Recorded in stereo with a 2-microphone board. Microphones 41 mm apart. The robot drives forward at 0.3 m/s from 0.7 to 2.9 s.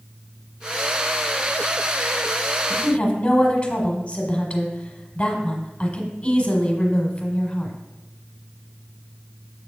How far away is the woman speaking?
About 1.4 m.